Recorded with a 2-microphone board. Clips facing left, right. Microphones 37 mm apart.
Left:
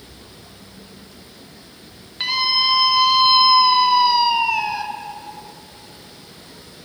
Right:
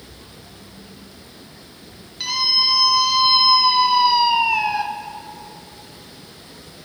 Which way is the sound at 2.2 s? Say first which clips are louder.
Left 2 dB; 30° left (ahead or behind).